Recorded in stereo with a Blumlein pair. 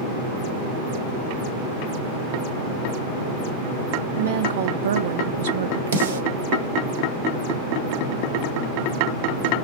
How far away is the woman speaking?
About 0.7 m.